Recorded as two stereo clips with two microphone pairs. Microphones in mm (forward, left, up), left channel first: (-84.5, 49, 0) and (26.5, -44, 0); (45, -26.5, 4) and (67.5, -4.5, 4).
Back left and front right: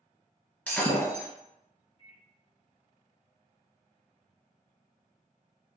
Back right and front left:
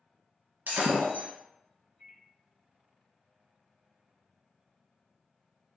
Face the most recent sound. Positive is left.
turn(degrees=-165)